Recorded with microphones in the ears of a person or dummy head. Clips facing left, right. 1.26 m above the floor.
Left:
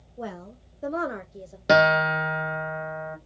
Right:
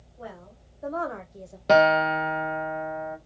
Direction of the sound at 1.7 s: 10° left (ahead or behind).